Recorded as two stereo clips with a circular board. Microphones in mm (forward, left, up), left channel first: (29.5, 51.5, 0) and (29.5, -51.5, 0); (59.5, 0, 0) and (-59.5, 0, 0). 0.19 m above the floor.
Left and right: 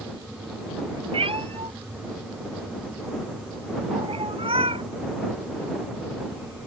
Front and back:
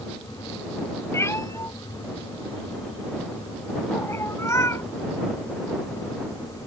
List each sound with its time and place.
1.1 s a cat meowing: 65° right